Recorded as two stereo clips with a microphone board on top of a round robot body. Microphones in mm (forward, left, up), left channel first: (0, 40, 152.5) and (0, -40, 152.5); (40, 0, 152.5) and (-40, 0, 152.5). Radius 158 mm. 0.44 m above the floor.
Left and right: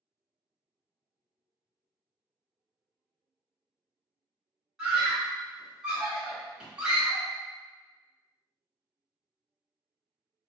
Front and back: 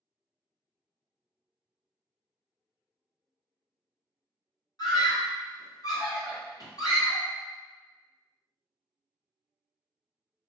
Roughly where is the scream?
Ahead.